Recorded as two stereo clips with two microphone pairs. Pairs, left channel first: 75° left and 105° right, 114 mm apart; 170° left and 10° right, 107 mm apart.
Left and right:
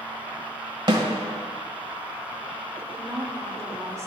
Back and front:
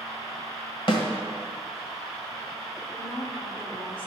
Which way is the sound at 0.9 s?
155° right.